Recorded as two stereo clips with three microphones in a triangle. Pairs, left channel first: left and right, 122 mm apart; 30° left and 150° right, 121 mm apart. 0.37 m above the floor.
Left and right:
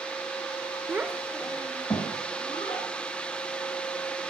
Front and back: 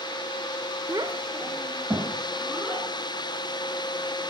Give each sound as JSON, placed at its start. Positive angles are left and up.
{"t": 0.9, "sound": "a child speaking", "azimuth_deg": -135, "distance_m": 0.6}